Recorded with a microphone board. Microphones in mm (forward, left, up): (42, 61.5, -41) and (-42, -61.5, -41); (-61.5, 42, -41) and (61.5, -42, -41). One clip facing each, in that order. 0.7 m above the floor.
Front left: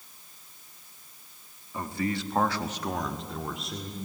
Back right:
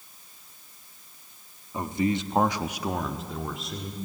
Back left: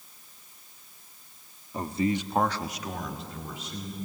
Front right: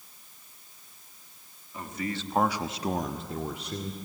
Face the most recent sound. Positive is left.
turn(degrees=-30)